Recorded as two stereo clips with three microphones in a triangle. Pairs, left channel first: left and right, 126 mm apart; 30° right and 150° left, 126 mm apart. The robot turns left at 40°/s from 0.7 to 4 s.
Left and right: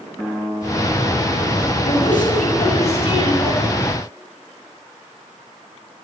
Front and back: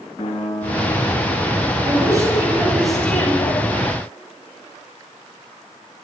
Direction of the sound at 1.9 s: 100° left.